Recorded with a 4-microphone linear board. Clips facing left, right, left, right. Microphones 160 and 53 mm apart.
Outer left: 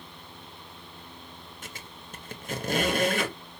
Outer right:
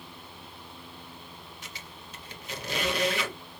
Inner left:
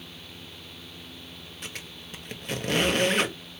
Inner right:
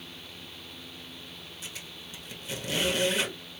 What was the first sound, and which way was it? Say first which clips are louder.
A squeak: outer left 1 dB, inner left 5 dB; 50° left (ahead or behind).